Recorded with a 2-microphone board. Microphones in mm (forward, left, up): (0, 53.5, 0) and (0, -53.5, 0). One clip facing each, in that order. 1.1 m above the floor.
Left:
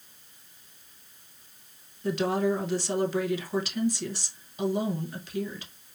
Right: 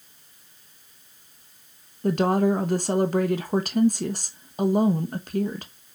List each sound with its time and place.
2.0 s a woman speaking: 50° right (ahead or behind), 1.0 m